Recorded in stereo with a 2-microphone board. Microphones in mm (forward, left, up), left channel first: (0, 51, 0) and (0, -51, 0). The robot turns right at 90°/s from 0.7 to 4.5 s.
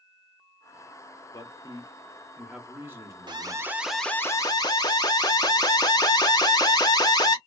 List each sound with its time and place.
1.3 s a man speaking: 75° left, 1.0 m; by 3.8 s 65° right, 1.0 m
3.3 s an alarm: 60° right, 0.6 m; by 7.4 s 50° left, 0.6 m